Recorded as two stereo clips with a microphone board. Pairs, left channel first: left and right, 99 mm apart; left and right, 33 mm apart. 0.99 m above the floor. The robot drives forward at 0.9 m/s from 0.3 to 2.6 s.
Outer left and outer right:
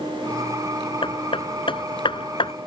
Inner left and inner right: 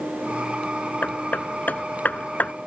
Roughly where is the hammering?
Left.